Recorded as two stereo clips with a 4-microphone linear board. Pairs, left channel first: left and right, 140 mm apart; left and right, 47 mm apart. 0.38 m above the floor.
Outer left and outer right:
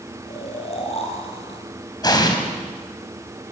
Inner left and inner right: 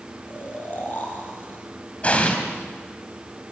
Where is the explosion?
30° left (ahead or behind), 3 m.